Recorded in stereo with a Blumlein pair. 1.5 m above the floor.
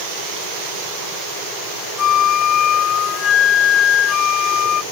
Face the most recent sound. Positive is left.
turn(degrees=25)